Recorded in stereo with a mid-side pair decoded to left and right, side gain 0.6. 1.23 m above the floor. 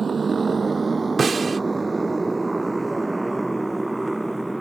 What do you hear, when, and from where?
0.0 s a motorcycle: 25° right; by 4.6 s 5° right
1.2 s a snare drum: 25° right